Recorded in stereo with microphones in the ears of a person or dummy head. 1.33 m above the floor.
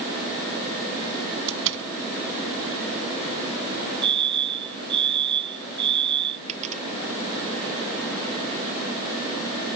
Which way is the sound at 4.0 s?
65° right (ahead or behind).